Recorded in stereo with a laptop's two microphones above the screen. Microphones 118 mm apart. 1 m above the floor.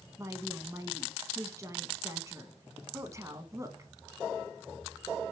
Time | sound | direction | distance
0.2 | a woman speaking | 25° right (ahead or behind) | 1.2 m